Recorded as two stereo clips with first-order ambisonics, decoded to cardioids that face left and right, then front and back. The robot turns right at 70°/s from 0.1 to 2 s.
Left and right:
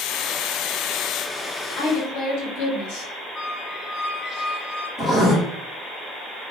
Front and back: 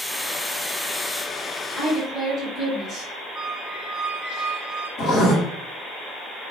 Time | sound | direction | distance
1.8 | a woman speaking | 70° left | 1.5 m
3.4 | a squeak | 30° left | 1.4 m
5.0 | writing | 20° left | 1.6 m